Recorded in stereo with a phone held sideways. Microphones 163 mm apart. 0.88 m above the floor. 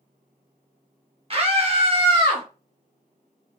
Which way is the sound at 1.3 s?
35° right (ahead or behind).